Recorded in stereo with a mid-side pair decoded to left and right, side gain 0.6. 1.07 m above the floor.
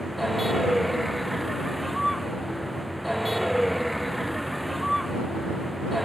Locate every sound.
0.0 s a vehicle: 5° right